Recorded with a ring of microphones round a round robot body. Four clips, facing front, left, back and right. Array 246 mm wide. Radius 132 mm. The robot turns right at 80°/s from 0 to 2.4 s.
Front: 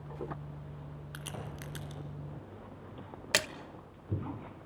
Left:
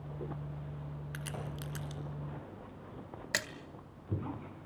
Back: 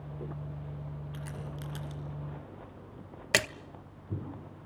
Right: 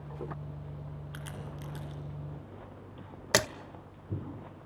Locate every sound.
1.1 s a crack: 25° left, 3 m; by 2.0 s 95° left, 3 m
3.3 s a splash: 110° right, 0.6 m